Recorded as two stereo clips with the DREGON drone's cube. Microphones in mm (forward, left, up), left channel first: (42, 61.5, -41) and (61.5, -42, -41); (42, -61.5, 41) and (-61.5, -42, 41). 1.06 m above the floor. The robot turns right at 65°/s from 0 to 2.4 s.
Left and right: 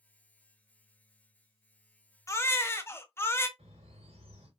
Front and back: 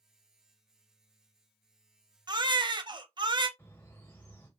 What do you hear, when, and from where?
2.3 s a baby crying: 150° left, 0.6 m; by 3.5 s 160° left, 0.6 m
3.6 s a bird: 80° right, 2 m